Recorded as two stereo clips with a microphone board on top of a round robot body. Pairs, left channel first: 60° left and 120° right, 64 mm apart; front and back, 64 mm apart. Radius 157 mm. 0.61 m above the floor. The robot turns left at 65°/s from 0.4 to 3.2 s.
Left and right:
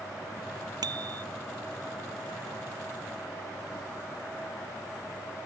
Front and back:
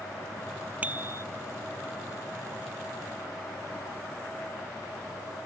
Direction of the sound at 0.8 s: 115° right.